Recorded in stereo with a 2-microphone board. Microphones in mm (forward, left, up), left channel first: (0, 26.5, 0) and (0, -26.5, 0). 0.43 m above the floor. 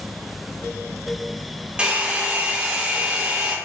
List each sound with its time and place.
1.8 s a hair dryer: 20° right (ahead or behind), 0.9 m